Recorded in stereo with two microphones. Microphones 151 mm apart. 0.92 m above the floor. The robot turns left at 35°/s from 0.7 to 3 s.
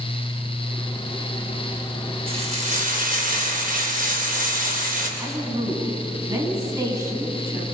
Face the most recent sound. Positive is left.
turn(degrees=-25)  # may be behind; listen again after turning